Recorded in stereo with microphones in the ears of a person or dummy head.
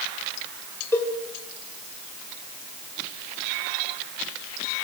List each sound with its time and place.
0.9 s a cowbell: 15° left (ahead or behind), 2.5 m